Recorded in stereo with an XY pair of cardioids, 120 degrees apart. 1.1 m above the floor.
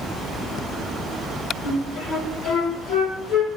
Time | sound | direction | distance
1.6 | a flute | 55° left | 4.5 m